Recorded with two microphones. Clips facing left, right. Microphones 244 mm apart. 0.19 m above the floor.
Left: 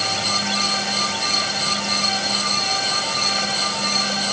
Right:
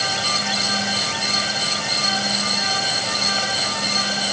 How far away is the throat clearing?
I don't hear throat clearing.